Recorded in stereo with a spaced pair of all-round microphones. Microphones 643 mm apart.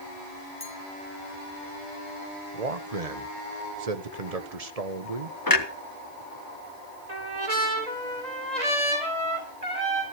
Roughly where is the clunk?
Left.